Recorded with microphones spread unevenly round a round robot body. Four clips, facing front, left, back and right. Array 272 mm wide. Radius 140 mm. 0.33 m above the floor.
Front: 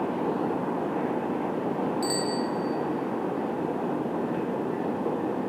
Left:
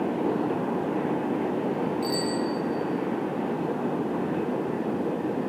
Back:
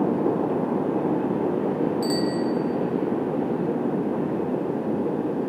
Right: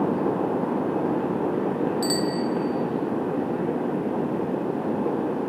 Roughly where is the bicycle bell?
Right.